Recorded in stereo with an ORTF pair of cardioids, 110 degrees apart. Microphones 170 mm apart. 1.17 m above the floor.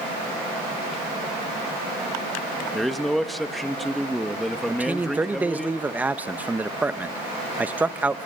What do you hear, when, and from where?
2.7 s a man speaking: straight ahead, 1.4 m
4.7 s a man speaking: 10° right, 1.0 m